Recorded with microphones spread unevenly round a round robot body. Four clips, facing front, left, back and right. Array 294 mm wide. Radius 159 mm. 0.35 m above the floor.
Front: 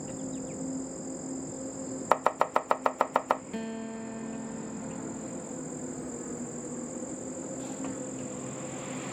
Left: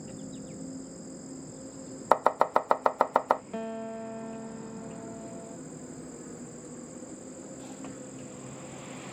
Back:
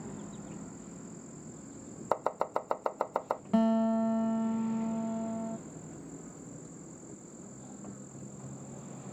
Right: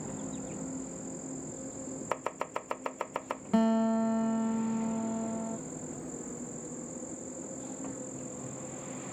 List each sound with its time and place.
0.0 s an insect: 10° right
2.1 s chopping: 50° left
3.5 s a guitar: 130° right